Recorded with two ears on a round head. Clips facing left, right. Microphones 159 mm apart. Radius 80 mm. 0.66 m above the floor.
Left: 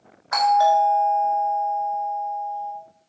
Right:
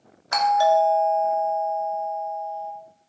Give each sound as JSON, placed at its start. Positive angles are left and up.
{"t": 0.3, "sound": "a doorbell", "side_deg": -35, "distance_m": 2.5}